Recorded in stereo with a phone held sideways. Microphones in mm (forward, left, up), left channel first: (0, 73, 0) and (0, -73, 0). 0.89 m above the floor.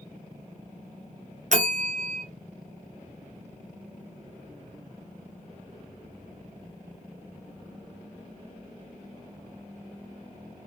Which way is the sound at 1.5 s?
60° right (ahead or behind).